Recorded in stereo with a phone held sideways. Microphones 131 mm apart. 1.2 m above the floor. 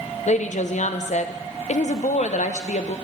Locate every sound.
0.3 s a woman speaking: 65° left (ahead or behind), 0.7 m